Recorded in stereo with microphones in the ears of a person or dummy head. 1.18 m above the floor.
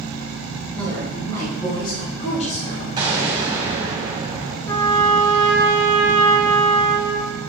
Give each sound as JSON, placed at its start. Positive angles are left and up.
{"t": 0.8, "sound": "a woman speaking", "side_deg": 5, "distance_m": 3.5}
{"t": 3.0, "sound": "an explosion", "side_deg": -20, "distance_m": 2.0}
{"t": 4.7, "sound": "a trumpet", "side_deg": 15, "distance_m": 1.7}